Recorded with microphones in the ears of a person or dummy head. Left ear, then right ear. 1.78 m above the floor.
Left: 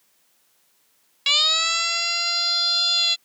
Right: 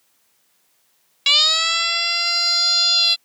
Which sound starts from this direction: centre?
A siren, at 1.3 s.